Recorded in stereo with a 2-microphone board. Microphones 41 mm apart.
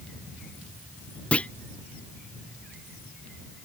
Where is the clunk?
30° left (ahead or behind).